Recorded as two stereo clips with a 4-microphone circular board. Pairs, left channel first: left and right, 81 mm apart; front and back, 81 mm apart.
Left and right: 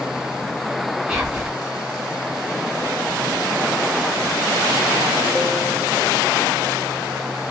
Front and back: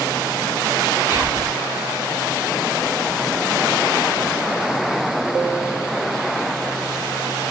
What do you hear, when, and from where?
1.1 s whispering: 160° right, 1.9 m